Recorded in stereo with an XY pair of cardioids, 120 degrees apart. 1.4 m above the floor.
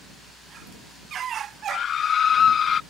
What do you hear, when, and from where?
1.7 s a scream: 50° left; by 2.8 s 45° left